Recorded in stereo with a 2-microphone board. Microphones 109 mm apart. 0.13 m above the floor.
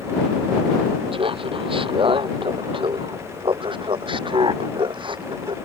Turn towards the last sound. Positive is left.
turn(degrees=-45)  # may be behind; listen again after turning